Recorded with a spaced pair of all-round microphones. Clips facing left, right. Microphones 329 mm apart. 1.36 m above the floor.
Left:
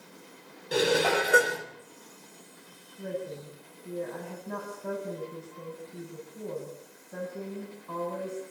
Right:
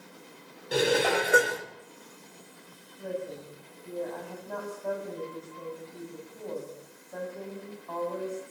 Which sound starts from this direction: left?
A woman speaking, at 3.0 s.